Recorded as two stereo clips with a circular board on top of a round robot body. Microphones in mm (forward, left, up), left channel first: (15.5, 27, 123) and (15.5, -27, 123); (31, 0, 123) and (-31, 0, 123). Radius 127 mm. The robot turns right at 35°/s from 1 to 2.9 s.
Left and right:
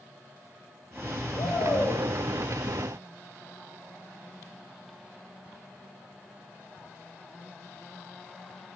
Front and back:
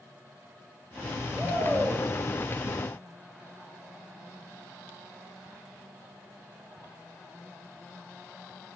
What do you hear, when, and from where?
1.4 s a shout: 105° left, 6 m; by 2.0 s 130° left, 6 m